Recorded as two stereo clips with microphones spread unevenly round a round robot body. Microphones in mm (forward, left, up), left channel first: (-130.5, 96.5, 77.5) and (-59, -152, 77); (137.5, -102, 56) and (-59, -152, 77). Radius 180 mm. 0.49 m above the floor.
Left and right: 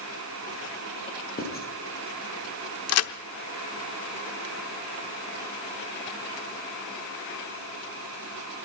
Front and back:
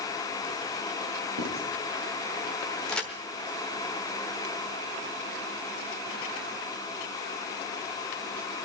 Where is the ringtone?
I don't hear a ringtone.